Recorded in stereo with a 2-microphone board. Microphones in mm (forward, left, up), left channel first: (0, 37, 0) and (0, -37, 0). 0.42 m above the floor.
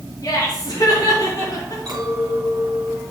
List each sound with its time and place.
0.2 s laughter: 55° left (ahead or behind), 4 m; by 1.8 s 50° left (ahead or behind), 5 m
1.9 s a clink: 65° right (ahead or behind), 3 m